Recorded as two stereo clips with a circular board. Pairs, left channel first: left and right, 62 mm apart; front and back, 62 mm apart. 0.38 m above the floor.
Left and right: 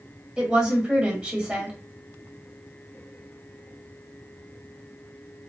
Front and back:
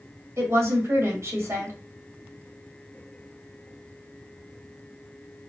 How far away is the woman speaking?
About 1.4 m.